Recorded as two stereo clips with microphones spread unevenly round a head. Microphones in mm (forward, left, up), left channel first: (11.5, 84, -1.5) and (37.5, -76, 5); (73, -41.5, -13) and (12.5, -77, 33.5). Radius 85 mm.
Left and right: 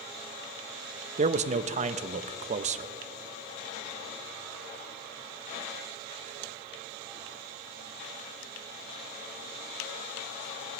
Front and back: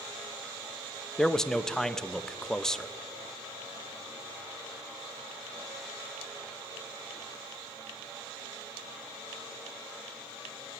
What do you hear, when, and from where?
1.2 s a man speaking: 35° right, 0.6 m